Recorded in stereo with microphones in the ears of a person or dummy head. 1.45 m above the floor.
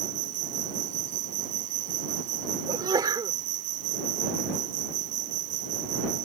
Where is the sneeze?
20° right (ahead or behind).